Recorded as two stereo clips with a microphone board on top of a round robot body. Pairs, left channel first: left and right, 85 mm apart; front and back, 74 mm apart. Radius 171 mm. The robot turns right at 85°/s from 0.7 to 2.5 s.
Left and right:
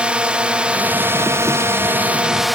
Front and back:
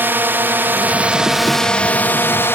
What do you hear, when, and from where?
0.0 s a drone: 155° right; by 2.5 s straight ahead